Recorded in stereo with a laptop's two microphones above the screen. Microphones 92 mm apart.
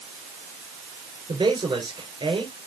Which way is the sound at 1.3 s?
60° right (ahead or behind).